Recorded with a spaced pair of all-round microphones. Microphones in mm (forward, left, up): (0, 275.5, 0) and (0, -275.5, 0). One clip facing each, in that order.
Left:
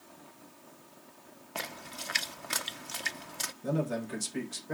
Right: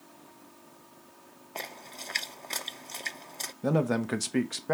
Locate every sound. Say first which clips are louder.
1.6 s a splash: left 1 dB; 40° left (ahead or behind), 0.5 m
3.6 s a man speaking: right 6 dB; 80° right, 1.0 m